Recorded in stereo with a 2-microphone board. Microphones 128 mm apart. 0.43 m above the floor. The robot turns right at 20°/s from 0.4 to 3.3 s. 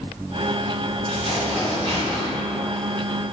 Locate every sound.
1.1 s tearing paper: 55° left (ahead or behind), 1.9 m; by 2.3 s 30° left (ahead or behind), 1.9 m